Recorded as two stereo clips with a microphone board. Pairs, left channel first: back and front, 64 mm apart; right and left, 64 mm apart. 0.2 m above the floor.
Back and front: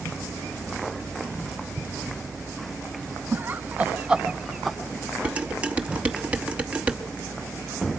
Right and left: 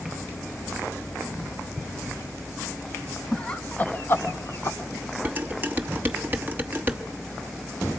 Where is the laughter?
25° right, 1.2 m; by 4.8 s 90° right, 1.5 m.